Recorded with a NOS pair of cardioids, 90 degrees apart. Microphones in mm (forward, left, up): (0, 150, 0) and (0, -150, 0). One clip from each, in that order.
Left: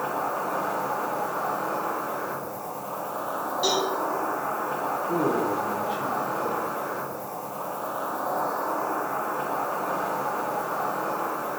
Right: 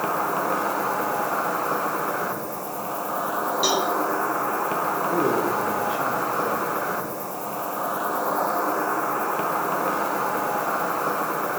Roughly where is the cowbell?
Ahead right.